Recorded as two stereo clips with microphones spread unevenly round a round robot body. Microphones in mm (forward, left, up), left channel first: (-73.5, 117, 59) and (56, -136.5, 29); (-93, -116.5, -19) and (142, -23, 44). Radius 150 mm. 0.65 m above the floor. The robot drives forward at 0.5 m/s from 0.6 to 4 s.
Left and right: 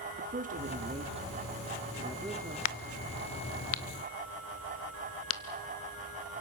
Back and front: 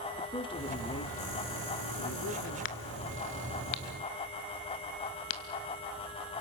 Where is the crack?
145° left, 0.6 m; by 5.4 s 165° left, 1.2 m.